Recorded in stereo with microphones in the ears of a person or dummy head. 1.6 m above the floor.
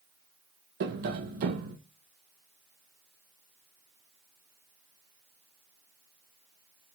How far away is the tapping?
About 1.2 m.